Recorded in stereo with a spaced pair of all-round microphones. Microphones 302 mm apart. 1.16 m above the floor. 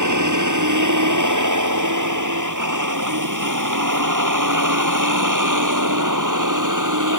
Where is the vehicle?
75° right (ahead or behind); by 7.2 s 85° right.